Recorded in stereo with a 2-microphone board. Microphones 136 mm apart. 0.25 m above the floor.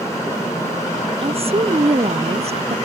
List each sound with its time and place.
1.2 s a woman speaking: 45° right (ahead or behind); by 2.8 s 50° right (ahead or behind)